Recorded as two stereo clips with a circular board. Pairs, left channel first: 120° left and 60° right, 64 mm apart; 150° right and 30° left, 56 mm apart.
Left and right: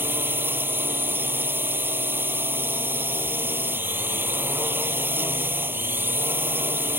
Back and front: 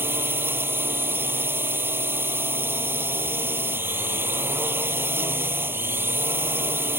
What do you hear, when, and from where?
0.0 s a drone: 10° right